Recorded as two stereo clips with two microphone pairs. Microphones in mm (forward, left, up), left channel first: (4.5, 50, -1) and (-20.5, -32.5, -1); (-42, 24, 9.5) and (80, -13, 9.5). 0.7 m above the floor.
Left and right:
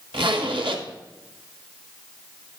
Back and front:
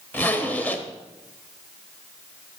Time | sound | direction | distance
0.1 | a zipper | 120° right | 1.0 m